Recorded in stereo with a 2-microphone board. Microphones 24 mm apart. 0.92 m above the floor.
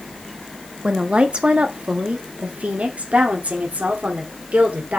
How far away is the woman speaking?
About 1.3 m.